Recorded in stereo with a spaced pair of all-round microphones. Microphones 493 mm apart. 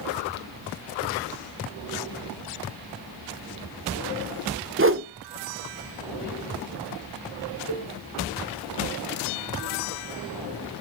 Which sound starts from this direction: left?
A cowbell, at 7.7 s.